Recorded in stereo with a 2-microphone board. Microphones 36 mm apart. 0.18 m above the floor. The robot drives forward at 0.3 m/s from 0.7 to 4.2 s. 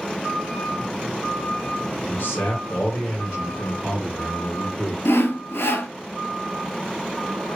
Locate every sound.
2.1 s a man speaking: 65° left (ahead or behind), 2.5 m
5.0 s sawing: 80° left, 0.7 m